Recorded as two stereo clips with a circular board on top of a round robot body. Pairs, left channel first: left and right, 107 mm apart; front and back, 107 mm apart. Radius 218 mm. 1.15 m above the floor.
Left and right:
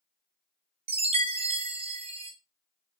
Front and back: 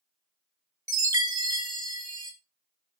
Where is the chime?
120° right, 0.5 m.